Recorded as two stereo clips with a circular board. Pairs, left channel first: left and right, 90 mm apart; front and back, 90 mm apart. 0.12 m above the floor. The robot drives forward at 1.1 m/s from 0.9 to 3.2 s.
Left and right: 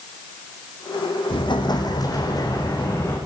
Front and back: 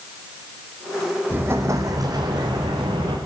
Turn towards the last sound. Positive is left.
turn(degrees=155)